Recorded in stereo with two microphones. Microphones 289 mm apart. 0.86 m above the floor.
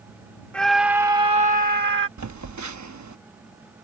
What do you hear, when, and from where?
0.5 s a scream: 5° left (ahead or behind); by 2.1 s 40° right (ahead or behind)
2.2 s a phone buzzing: 75° right (ahead or behind)